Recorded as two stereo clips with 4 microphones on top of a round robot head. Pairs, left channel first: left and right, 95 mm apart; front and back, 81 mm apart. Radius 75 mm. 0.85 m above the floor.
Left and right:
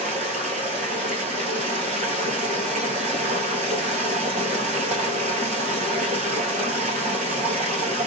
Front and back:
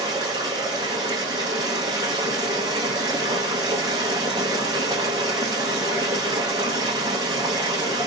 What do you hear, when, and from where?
0.0 s running water: 115° right, 1.3 m